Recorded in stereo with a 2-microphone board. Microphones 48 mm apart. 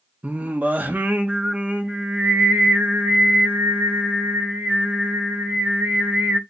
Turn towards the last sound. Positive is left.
turn(degrees=-35)  # may be behind; listen again after turning